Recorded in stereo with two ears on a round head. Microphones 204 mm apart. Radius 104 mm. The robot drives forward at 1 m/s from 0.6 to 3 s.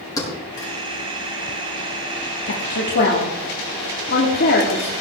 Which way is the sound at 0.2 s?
15° left (ahead or behind).